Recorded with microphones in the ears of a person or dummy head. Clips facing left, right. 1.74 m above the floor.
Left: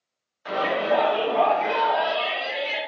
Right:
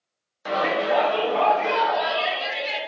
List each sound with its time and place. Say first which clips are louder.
0.5 s a shout: even; 55° right (ahead or behind), 0.9 m; by 2.8 s 85° right, 2 m